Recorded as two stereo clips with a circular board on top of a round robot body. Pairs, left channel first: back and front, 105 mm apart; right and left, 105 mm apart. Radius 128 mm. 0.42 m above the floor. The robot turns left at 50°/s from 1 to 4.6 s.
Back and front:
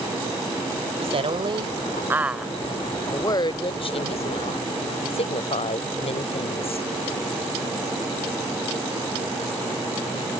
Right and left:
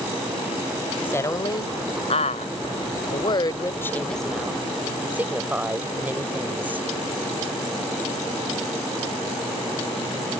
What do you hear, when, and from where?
1.0 s a woman speaking: 15° right; by 6.9 s 165° left